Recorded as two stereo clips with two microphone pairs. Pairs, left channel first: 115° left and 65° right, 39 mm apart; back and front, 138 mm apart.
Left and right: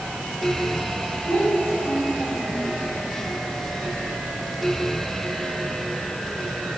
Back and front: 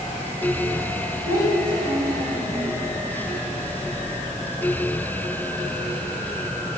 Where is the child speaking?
110° left, 4.5 m; by 2.7 s 135° left, 4.5 m.